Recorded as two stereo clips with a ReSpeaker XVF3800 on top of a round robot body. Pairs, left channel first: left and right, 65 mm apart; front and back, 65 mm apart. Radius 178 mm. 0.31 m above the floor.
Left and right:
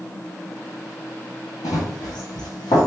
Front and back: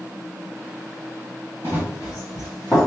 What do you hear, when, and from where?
1.6 s running footsteps: 115° left, 1.0 m; by 2.9 s 80° left, 1.5 m